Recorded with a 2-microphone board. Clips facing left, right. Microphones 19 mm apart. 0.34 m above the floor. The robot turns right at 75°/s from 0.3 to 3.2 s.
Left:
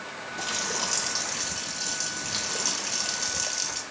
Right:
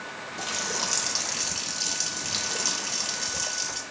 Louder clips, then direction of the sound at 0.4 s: Even; centre (ahead or behind).